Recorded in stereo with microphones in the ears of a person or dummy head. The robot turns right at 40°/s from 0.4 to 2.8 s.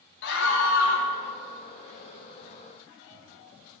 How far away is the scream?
About 0.9 m.